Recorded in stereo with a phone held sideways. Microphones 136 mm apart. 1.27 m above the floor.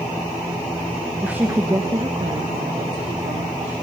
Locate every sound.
1.2 s a woman speaking: 5° right (ahead or behind), 1.1 m; by 3.7 s 50° right (ahead or behind), 3.5 m